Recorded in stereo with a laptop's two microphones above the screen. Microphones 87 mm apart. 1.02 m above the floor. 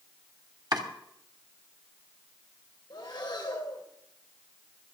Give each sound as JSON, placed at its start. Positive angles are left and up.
{"t": 0.7, "sound": "chopping", "side_deg": -50, "distance_m": 2.5}
{"t": 2.9, "sound": "breathing", "side_deg": 55, "distance_m": 2.5}